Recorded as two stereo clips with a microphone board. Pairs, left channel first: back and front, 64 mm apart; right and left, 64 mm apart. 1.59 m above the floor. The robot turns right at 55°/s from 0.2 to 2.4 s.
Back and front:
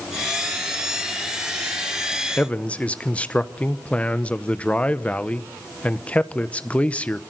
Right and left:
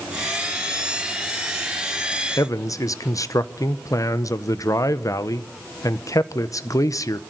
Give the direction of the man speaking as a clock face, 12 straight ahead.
4 o'clock.